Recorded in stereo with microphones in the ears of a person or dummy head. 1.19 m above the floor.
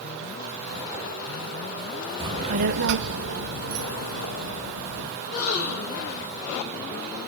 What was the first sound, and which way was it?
A child speaking, 20° right (ahead or behind).